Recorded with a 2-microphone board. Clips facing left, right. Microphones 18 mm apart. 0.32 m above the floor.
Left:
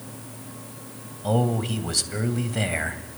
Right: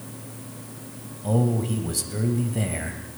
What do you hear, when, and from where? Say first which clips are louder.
1.2 s a man speaking: even; 40° left (ahead or behind), 1.9 m